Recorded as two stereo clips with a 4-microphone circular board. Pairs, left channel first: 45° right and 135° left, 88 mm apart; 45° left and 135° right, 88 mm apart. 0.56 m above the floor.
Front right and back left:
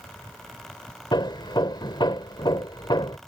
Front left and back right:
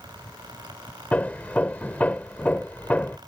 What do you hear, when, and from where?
1.1 s hammering: 25° right